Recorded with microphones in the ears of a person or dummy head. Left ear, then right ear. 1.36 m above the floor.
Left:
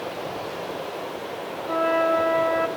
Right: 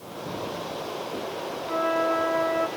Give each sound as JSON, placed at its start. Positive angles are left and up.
{"t": 1.7, "sound": "a flute", "side_deg": 5, "distance_m": 1.1}